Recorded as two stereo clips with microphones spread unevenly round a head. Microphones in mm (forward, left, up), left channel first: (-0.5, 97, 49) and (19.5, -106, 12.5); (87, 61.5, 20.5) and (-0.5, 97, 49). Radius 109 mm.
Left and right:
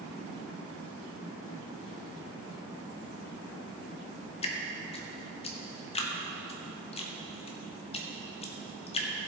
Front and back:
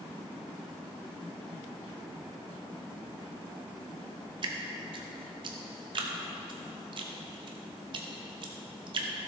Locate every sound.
4.4 s dripping: 150° left, 0.9 m